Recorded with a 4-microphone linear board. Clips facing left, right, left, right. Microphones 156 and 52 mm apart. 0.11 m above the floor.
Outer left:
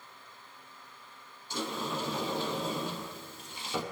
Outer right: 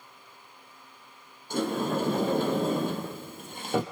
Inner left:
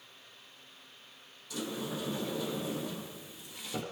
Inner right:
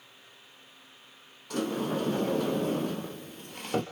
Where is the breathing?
No breathing in this recording.